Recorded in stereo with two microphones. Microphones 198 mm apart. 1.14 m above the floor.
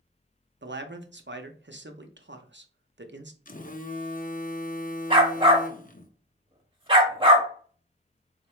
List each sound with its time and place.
0.6 s a man speaking: 60° right (ahead or behind), 0.7 m
3.5 s a phone buzzing: 40° left (ahead or behind), 0.6 m
5.1 s a dog barking: 25° right (ahead or behind), 1.0 m